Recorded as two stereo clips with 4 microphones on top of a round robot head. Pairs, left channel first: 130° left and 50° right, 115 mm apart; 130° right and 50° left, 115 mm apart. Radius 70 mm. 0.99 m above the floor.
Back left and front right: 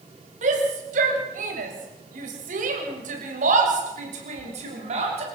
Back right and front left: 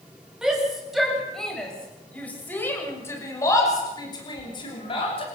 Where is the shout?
30° right, 7.5 m; by 5.2 s 85° right, 6 m.